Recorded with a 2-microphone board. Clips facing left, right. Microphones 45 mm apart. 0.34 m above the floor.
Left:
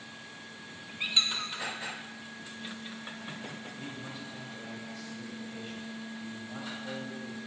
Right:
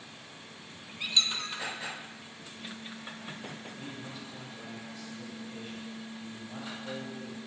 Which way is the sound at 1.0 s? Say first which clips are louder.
Even; 20° left (ahead or behind).